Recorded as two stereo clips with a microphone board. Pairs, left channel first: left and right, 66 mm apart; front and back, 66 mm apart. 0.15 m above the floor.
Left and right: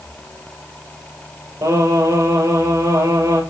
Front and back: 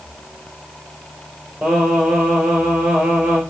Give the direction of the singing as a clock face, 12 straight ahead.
3 o'clock.